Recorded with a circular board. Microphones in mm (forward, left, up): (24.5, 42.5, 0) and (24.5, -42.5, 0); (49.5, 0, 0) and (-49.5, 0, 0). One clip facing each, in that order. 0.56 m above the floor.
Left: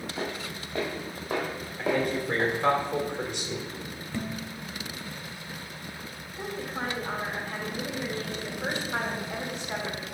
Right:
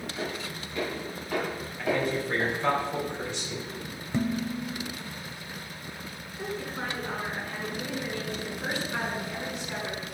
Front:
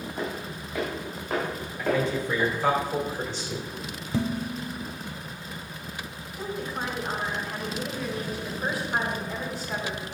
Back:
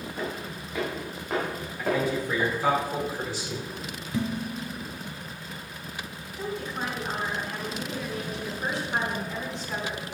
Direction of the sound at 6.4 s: 80° left.